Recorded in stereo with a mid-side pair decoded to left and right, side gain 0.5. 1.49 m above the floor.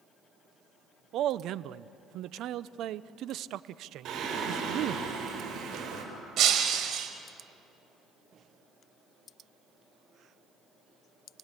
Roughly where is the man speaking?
Ahead right.